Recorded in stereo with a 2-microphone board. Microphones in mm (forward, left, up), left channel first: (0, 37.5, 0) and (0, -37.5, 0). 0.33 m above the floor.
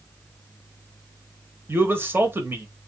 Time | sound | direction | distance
1.7 | a man speaking | 30° right (ahead or behind) | 1.2 m